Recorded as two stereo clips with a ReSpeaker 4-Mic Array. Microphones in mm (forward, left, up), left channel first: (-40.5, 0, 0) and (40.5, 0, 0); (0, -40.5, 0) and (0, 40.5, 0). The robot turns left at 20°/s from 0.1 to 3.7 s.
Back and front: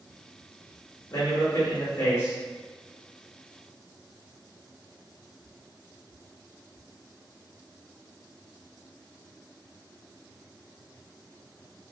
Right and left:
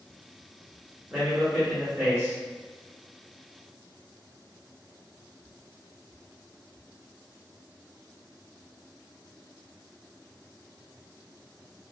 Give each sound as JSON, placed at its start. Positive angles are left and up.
{"t": 1.1, "sound": "a man speaking", "azimuth_deg": 160, "distance_m": 0.9}